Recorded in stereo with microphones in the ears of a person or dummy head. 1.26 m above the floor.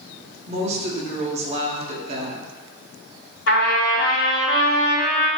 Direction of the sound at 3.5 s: 50° left (ahead or behind).